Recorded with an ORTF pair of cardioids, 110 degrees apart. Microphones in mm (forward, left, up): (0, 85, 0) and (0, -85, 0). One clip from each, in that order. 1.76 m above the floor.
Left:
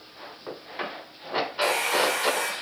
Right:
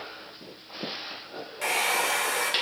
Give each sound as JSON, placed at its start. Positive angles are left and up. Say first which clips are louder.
{"t": 1.6, "sound": "a hair dryer", "louder": "left 1 dB", "azimuth_deg": -5, "distance_m": 0.8}